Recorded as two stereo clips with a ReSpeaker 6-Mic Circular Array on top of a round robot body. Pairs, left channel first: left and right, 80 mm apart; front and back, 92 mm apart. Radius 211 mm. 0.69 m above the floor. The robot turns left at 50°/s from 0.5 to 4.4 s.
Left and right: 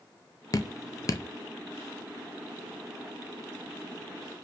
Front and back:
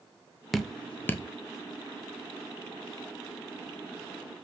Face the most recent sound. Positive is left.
turn(degrees=-105)